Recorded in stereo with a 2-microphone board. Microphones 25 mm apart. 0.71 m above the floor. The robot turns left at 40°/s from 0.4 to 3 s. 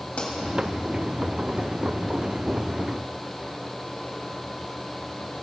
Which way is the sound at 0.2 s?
65° left (ahead or behind).